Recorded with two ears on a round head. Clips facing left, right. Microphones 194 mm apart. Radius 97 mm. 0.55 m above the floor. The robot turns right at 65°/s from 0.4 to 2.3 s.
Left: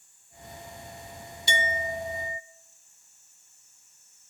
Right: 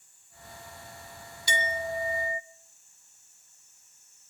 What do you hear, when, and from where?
1.5 s a clink: 145° left, 0.6 m; by 2.4 s 160° right, 0.6 m